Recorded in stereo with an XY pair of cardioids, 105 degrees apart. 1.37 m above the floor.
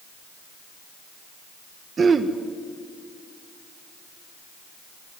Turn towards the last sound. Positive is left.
turn(degrees=-40)